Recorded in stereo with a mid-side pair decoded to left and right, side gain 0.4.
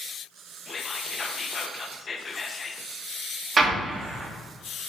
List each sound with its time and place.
0.7 s whispering: 40° left, 1.0 m
3.6 s an explosion: 45° right, 1.6 m